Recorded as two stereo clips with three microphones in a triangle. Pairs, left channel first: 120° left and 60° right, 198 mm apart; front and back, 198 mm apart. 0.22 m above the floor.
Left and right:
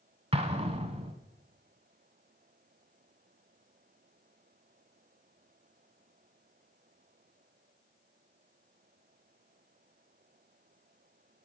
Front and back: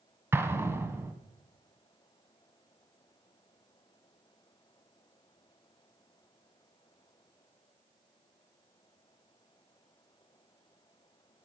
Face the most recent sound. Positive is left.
turn(degrees=-105)